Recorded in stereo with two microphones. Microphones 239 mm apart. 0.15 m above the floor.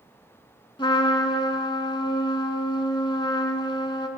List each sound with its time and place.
0.8 s a trumpet: 20° left (ahead or behind), 0.7 m